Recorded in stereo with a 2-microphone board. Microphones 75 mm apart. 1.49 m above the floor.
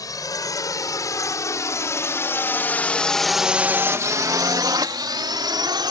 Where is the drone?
55° left (ahead or behind); by 5.9 s 85° right.